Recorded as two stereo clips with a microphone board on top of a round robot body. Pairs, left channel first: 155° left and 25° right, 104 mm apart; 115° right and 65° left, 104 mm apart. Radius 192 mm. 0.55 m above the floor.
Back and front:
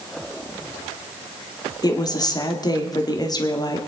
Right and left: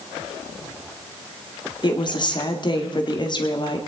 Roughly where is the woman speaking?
Behind right.